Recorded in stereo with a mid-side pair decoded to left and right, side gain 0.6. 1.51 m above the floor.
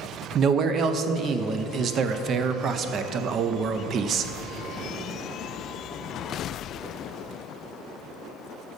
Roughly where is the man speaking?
Ahead right.